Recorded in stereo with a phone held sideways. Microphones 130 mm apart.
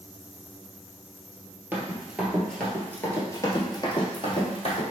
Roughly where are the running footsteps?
Centre.